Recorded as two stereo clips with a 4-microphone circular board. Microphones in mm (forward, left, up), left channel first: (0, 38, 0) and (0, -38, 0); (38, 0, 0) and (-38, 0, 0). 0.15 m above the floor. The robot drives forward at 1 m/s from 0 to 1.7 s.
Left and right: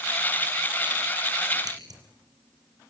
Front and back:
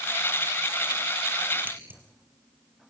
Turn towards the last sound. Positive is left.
turn(degrees=-120)